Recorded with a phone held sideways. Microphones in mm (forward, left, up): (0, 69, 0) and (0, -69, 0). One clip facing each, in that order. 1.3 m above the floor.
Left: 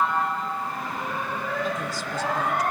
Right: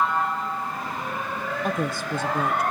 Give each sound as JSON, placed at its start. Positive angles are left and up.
{"t": 1.6, "sound": "a woman speaking", "side_deg": -60, "distance_m": 0.8}